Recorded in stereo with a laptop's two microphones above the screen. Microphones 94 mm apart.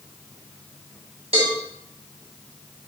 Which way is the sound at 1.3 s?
80° right.